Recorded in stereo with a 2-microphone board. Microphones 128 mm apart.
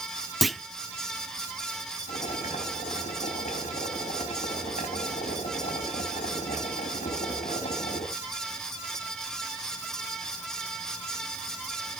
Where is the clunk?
Centre (ahead or behind), 0.7 m.